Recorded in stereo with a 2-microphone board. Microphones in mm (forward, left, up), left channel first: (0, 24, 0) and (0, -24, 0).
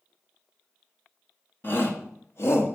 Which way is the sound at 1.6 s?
45° left (ahead or behind).